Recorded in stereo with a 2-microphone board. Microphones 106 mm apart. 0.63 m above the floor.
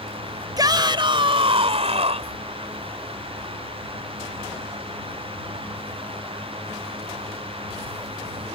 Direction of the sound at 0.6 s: 35° right (ahead or behind).